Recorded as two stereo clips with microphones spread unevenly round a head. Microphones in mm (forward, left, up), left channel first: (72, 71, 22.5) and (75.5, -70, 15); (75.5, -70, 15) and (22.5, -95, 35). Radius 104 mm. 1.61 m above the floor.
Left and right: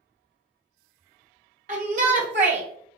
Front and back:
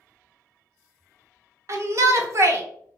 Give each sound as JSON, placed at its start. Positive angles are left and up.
{"t": 1.7, "sound": "a shout", "azimuth_deg": -145, "distance_m": 0.7}